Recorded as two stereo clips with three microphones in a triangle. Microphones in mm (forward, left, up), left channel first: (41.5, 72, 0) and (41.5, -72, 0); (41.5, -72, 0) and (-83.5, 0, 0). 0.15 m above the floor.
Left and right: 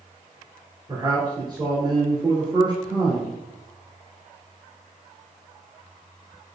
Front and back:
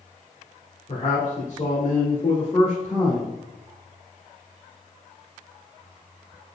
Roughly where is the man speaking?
Ahead right.